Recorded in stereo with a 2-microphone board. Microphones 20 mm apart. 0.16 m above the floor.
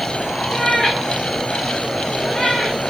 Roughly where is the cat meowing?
Centre.